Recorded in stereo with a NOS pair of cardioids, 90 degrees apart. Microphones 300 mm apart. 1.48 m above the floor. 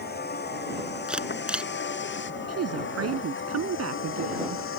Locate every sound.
0.0 s a vehicle: 35° left; by 4.8 s 45° left
1.1 s a camera shutter: 5° right
2.5 s a woman speaking: 55° right